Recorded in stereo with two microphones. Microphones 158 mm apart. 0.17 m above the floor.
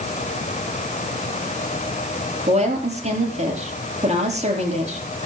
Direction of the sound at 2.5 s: 45° right (ahead or behind).